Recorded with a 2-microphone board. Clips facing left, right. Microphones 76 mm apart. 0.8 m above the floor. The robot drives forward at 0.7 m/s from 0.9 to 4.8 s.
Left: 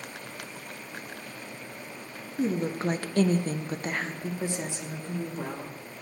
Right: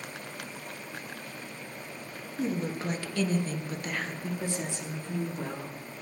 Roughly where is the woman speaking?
Left.